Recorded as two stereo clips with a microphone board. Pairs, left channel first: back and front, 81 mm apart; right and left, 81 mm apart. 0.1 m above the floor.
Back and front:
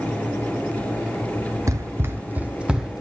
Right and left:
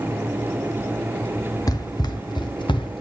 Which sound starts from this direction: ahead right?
Running footsteps, at 1.7 s.